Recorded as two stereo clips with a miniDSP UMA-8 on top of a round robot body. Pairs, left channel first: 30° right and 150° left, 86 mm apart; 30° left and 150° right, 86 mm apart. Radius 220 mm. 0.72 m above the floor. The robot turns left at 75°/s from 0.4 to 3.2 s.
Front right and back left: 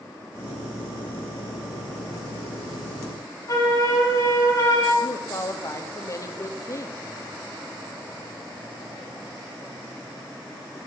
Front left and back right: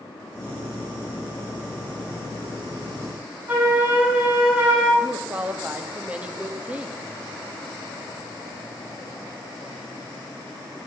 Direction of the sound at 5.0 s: 80° right.